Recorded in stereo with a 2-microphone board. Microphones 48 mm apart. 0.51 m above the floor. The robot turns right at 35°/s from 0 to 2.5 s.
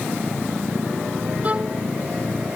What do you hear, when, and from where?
1.4 s a violin: 30° right (ahead or behind); by 1.8 s 20° right (ahead or behind)